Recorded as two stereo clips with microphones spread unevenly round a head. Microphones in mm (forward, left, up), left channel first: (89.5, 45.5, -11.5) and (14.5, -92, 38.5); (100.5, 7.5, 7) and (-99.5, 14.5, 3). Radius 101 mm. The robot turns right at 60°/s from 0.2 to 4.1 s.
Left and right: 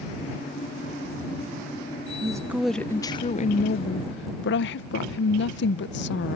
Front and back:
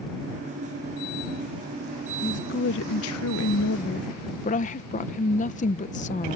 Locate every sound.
2.2 s a woman speaking: 60° right; by 6.4 s 50° left